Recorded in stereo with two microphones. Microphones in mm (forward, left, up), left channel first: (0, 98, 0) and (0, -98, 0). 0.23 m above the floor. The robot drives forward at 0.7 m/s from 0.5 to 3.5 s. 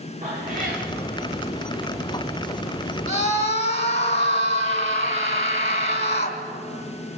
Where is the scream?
35° left (ahead or behind), 2.5 m.